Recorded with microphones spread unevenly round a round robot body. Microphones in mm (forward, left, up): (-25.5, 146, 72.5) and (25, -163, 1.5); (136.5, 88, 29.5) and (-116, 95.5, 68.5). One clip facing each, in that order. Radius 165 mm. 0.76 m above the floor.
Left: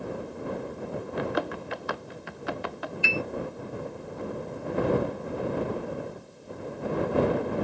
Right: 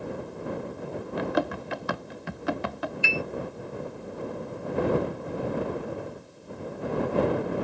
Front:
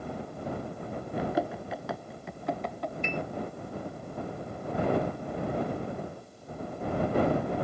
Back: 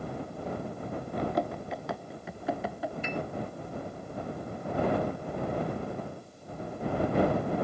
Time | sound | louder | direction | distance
1.2 | running footsteps | right 3 dB, front 1 dB | 90° right | ?
3.0 | a piano | left 2 dB, front 1 dB | 95° right | ?